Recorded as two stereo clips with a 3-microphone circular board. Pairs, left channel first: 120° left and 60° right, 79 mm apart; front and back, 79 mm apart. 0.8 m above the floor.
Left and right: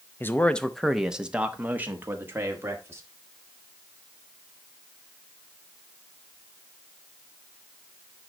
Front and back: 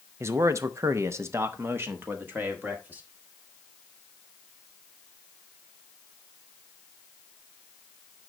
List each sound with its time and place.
0.2 s a man speaking: 160° left, 0.7 m; by 3.0 s 115° right, 1.9 m